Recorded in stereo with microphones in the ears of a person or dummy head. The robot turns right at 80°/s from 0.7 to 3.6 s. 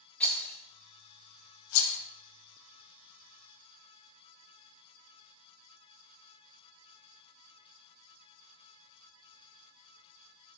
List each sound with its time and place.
0.2 s a rattle: 10° left (ahead or behind), 0.6 m; by 2.0 s 70° left (ahead or behind), 0.6 m